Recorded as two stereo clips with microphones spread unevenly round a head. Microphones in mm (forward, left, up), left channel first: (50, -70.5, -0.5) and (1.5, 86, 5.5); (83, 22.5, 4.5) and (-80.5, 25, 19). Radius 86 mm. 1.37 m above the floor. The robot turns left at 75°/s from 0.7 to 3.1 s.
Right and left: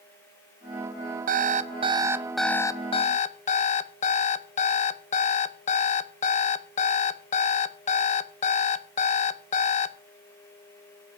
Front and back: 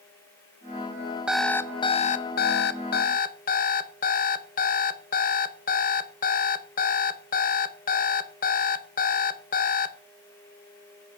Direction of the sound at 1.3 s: 100° left.